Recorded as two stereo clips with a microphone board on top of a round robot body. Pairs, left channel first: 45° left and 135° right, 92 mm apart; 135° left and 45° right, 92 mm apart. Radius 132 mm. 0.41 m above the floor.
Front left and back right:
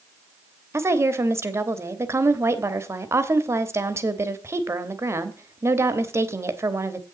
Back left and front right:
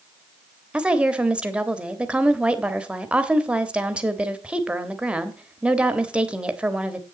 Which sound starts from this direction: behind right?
A woman speaking, at 0.7 s.